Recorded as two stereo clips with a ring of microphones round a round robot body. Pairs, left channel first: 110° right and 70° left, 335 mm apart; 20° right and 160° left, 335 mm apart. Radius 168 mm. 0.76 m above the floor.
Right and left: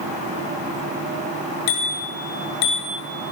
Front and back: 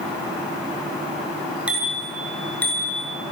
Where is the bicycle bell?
115° right, 8.5 m; by 3.0 s 105° right, 8.5 m.